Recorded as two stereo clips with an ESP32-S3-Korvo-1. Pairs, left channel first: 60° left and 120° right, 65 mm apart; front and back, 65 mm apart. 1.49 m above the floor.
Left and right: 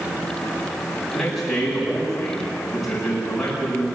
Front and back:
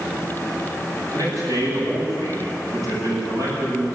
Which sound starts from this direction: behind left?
A man speaking, at 1.1 s.